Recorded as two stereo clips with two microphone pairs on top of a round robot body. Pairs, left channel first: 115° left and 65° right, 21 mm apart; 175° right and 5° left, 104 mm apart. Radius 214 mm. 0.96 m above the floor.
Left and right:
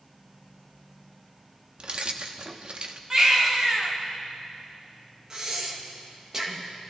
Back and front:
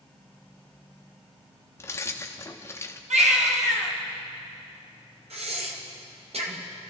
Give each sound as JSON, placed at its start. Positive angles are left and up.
{"t": 1.8, "sound": "keys jangling", "azimuth_deg": -110, "distance_m": 0.5}
{"t": 3.1, "sound": "a baby crying", "azimuth_deg": 5, "distance_m": 1.5}
{"t": 5.3, "sound": "breathing", "azimuth_deg": 5, "distance_m": 2.0}